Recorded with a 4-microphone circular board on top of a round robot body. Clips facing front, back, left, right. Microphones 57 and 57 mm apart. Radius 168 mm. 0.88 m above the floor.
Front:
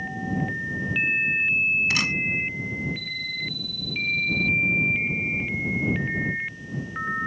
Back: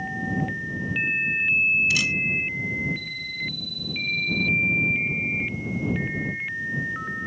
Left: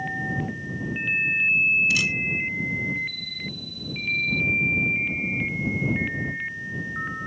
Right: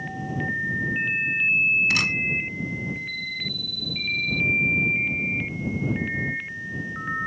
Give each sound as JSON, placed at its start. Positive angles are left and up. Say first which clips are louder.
{"t": 1.9, "sound": "a camera shutter", "louder": "back 1 dB, even", "azimuth_deg": -45}